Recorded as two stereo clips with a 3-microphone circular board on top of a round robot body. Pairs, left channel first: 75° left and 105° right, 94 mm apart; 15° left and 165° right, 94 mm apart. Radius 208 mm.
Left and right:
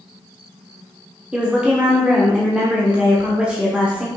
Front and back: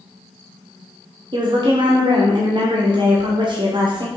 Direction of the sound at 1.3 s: Straight behind.